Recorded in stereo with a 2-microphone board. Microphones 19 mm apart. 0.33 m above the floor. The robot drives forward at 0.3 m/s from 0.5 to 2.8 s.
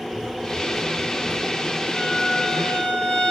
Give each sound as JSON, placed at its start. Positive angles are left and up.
{"t": 0.1, "sound": "running footsteps", "side_deg": 35, "distance_m": 1.9}
{"t": 1.9, "sound": "a violin", "side_deg": 60, "distance_m": 0.9}